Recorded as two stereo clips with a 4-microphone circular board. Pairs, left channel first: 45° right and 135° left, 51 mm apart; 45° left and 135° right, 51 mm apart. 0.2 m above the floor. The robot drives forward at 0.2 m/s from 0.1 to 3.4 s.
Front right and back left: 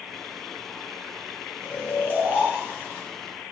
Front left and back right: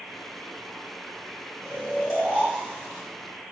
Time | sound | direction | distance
1.6 | snoring | 115° left | 1.6 m